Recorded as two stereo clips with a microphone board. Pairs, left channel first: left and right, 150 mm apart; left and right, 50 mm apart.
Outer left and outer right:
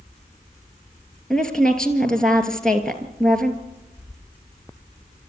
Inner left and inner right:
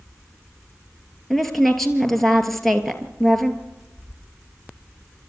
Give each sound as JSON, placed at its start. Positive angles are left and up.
{"t": 1.3, "sound": "a woman speaking", "side_deg": 5, "distance_m": 2.5}